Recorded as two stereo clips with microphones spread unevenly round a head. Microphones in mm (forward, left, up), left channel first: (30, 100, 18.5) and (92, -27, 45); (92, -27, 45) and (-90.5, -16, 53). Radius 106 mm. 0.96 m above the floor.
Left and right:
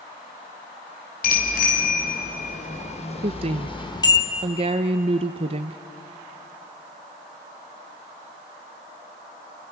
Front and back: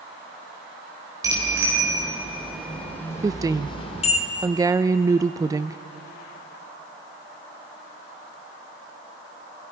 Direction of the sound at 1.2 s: 105° left.